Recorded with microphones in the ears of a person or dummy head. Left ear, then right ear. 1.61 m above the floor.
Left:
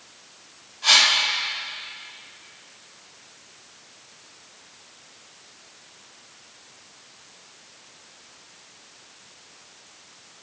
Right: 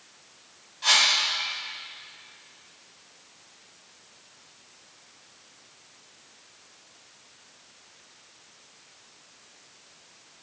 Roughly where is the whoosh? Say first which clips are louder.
Left 4 dB; right.